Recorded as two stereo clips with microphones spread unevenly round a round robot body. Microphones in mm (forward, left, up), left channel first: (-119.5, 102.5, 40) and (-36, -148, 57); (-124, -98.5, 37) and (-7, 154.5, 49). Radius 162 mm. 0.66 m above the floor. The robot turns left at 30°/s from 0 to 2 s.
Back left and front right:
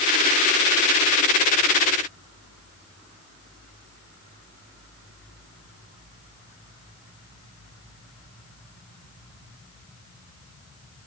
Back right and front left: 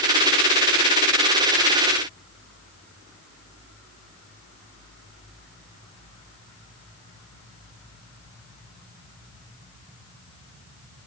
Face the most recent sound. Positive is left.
No sound to turn to.